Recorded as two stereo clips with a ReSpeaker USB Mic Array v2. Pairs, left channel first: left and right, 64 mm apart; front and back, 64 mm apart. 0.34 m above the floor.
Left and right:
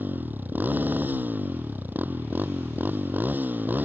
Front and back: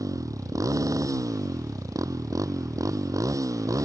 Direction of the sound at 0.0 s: 150° right.